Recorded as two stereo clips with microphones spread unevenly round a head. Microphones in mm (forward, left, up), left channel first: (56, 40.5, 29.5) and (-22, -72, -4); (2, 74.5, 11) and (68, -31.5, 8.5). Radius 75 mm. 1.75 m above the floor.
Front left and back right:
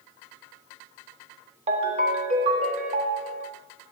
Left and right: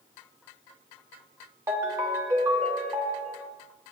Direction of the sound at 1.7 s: 110° right.